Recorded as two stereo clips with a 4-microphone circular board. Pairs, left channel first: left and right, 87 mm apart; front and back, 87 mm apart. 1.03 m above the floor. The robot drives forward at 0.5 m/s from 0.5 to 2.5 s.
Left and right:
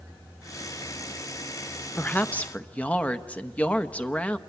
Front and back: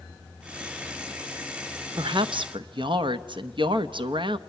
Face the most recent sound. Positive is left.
turn(degrees=165)